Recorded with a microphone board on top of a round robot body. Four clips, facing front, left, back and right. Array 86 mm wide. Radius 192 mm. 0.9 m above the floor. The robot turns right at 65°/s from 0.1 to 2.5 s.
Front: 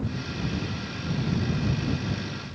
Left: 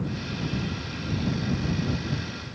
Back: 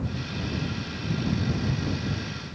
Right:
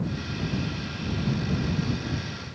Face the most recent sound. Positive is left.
No sound to turn to.